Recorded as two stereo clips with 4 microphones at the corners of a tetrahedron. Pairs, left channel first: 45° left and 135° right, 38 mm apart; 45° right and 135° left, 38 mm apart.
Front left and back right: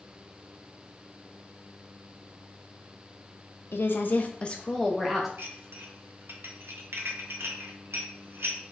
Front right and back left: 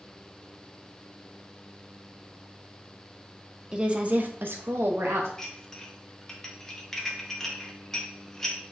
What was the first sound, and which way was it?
A woman speaking, 65° left.